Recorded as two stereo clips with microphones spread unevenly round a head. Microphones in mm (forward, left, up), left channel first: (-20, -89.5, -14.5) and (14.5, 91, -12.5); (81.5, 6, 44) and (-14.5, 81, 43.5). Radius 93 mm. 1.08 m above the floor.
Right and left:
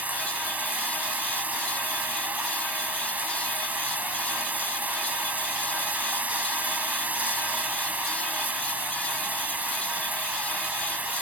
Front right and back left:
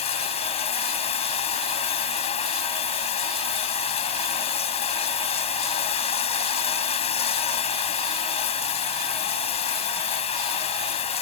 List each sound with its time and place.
0.0 s running water: 5° right